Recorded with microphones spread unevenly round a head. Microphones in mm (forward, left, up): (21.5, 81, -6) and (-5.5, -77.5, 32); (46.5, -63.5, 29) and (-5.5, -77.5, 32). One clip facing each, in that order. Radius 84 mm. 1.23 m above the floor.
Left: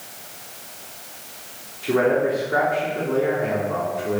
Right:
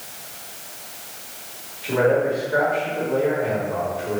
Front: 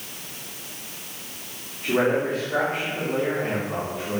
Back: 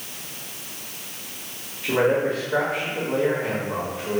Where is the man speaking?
100° left, 3.5 m.